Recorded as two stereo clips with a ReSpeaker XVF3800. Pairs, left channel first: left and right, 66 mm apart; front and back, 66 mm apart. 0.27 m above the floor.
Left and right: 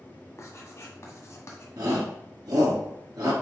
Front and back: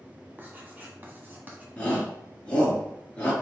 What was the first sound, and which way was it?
Writing, 125° left.